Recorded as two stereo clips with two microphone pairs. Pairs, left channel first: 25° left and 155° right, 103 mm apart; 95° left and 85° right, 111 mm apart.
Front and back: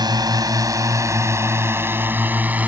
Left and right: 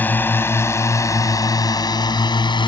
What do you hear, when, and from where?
0.0 s a drone: 170° left; by 2.7 s 135° left